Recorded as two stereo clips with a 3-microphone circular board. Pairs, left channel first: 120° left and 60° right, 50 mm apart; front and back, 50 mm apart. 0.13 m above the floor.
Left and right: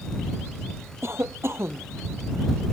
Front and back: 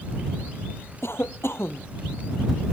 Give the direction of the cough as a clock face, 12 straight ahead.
1 o'clock.